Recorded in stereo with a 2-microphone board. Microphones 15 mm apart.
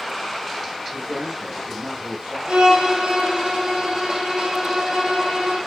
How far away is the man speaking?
About 9 m.